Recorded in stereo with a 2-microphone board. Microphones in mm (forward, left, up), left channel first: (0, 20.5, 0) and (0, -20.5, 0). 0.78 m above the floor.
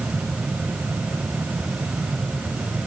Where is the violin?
I don't hear a violin.